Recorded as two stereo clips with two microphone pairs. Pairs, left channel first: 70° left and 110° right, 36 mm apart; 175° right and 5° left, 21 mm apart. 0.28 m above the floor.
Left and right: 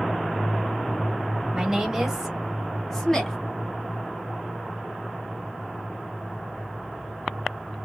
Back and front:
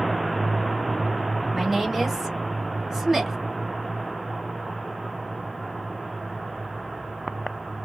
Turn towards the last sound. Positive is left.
turn(degrees=40)